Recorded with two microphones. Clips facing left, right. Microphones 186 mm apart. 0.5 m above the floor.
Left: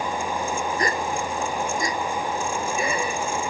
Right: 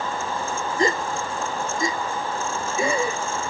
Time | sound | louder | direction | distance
0.8 | a gasp | right 2 dB | 25° right (ahead or behind) | ?